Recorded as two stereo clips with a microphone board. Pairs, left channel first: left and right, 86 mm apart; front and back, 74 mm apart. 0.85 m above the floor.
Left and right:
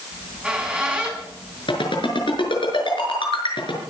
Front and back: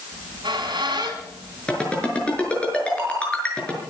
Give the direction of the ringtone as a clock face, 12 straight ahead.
10 o'clock.